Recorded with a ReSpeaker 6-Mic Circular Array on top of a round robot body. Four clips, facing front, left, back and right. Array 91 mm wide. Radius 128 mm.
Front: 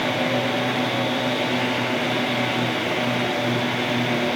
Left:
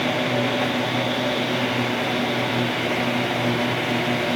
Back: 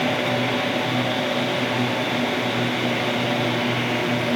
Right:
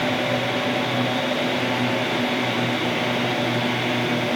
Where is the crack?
I don't hear a crack.